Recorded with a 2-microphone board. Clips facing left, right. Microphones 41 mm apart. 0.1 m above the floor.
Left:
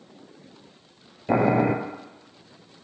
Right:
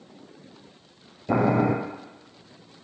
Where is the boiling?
35° left (ahead or behind), 1.3 m.